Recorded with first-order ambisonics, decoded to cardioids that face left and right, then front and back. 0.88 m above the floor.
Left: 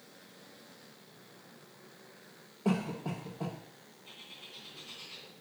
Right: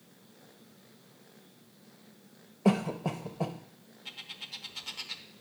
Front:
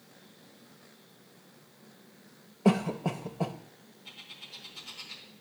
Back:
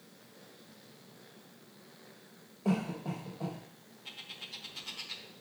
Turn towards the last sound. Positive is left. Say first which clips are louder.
# right 7 dB, back 2 dB
turn(degrees=-110)